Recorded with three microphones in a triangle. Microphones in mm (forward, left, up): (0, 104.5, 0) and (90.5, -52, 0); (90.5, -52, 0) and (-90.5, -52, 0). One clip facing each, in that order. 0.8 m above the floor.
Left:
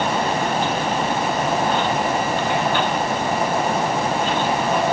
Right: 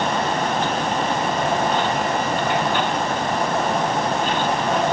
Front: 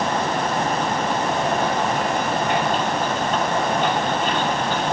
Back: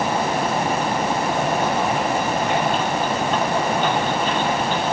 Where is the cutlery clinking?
No cutlery clinking in this recording.